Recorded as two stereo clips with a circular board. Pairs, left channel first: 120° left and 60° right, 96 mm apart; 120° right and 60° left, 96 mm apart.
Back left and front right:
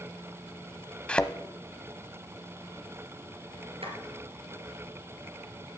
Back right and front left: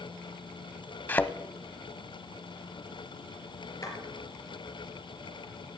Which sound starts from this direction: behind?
A thud, at 1.1 s.